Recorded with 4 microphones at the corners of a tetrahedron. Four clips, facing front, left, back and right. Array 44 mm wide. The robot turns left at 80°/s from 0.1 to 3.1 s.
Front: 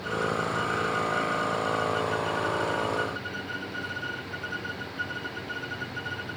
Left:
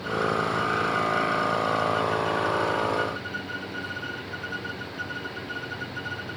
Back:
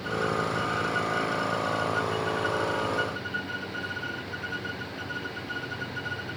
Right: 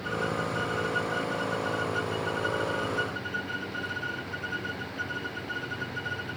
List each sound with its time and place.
Only background noise.